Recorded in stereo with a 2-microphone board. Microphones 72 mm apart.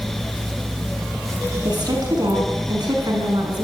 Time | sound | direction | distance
1.6 | a woman speaking | 70° right (ahead or behind) | 6 m